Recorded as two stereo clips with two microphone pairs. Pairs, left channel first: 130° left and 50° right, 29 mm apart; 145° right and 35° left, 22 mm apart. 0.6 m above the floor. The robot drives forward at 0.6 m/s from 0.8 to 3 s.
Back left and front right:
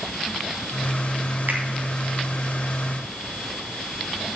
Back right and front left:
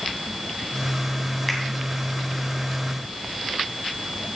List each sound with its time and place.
1.5 s a finger snap: 50° right, 3 m